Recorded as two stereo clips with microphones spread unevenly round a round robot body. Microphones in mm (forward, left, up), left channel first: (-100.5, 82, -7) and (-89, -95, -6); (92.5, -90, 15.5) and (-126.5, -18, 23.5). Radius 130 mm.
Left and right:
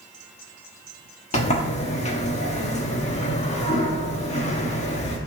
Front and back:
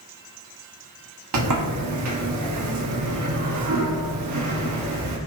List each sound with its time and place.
1.3 s a sliding door: 145° left, 1.3 m